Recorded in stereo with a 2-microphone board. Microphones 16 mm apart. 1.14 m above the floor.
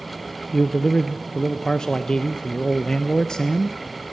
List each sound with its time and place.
0.5 s a man speaking: 50° left (ahead or behind), 0.7 m